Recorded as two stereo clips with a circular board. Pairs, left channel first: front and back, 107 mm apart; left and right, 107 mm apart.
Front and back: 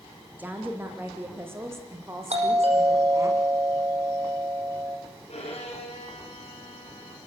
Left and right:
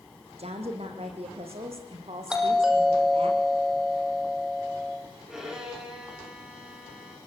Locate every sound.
0.4 s a woman speaking: 105° right, 5.5 m; by 3.3 s 120° right, 7 m
2.3 s a doorbell: 175° right, 5.5 m
5.3 s a violin: 10° right, 6 m